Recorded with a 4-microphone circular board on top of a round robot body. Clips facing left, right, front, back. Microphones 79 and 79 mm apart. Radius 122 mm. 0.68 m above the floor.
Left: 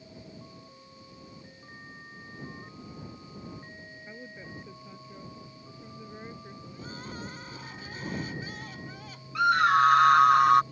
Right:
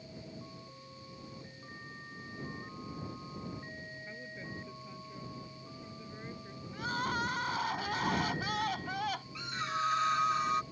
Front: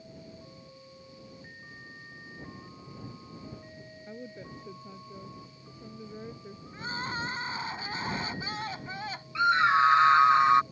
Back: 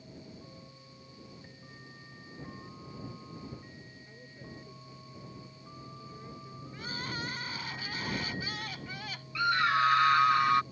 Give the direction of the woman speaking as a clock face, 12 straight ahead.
12 o'clock.